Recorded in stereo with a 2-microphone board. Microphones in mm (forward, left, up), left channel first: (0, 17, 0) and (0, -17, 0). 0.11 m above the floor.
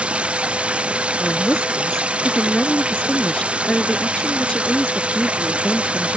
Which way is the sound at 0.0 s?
35° right (ahead or behind).